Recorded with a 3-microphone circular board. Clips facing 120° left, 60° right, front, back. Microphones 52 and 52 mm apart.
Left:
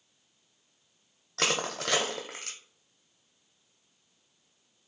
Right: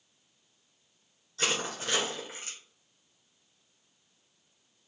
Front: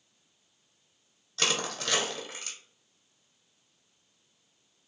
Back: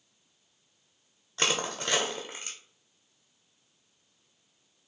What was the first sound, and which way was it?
Crushing, 115° left.